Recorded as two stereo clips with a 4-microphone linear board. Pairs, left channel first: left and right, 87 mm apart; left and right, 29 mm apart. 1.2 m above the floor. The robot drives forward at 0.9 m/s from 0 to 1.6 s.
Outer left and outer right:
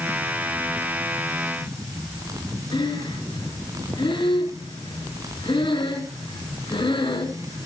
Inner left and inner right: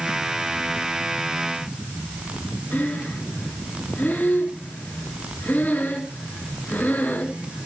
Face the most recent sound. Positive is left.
turn(degrees=85)